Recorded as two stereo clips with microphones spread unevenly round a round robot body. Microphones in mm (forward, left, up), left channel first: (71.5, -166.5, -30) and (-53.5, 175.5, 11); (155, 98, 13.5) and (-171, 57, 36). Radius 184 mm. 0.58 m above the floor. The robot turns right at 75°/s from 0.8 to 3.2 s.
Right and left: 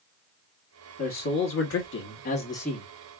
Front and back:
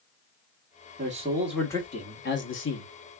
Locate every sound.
1.0 s a man speaking: 120° right, 1.2 m; by 2.9 s 20° left, 1.2 m